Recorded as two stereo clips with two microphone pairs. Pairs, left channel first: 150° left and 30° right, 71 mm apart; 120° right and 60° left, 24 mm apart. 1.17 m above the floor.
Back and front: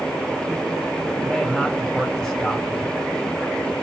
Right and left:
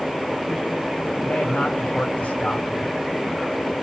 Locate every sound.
1.2 s a man speaking: 130° right, 5.5 m